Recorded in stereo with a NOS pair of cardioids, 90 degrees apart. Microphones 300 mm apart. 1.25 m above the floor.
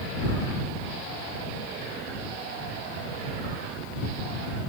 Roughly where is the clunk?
I don't hear a clunk.